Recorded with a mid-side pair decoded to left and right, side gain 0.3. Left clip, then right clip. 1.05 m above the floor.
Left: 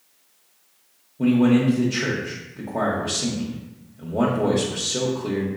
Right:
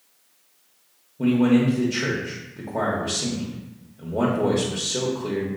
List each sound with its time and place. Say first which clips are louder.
1.2 s a man speaking: left 1 dB; straight ahead, 0.8 m